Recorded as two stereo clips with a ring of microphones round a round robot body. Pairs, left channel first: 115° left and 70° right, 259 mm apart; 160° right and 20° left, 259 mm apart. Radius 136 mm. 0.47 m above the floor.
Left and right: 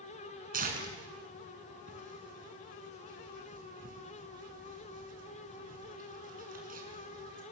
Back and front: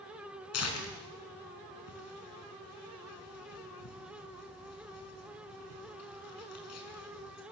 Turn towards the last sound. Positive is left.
turn(degrees=-125)